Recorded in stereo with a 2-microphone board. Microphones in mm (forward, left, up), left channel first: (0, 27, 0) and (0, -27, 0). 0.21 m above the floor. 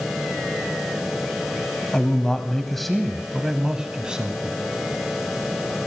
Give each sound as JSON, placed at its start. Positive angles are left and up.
{"t": 1.9, "sound": "a man speaking", "side_deg": 20, "distance_m": 1.3}